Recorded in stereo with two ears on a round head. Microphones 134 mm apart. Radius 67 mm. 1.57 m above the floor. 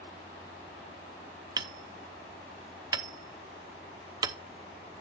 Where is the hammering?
25° right (ahead or behind), 0.7 m.